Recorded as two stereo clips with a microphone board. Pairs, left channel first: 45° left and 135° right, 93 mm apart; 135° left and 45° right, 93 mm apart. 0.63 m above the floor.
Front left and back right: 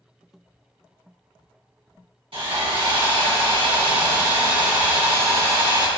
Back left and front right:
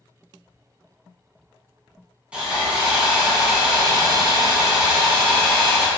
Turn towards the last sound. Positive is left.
turn(degrees=-125)